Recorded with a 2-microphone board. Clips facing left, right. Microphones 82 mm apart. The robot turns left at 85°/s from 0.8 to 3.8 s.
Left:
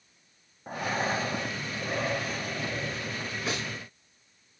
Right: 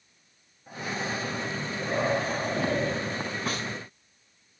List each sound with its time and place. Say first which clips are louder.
0.7 s breathing: left 3 dB; 80° left, 0.5 m; by 3.4 s 140° right, 0.5 m
3.5 s a snare drum: left 1 dB; 50° right (ahead or behind), 5 m; by 3.7 s 30° right (ahead or behind), 5 m